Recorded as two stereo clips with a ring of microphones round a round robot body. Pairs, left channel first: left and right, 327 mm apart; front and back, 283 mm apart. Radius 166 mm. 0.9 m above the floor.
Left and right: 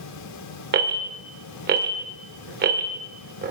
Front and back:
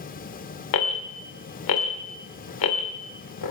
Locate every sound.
0.7 s an alarm: 25° right, 2.5 m